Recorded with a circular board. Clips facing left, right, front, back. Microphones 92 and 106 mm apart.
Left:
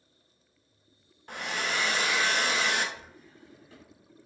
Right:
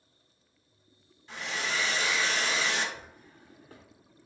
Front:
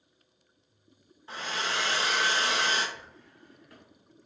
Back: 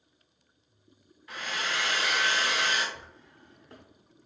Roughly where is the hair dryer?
Ahead left.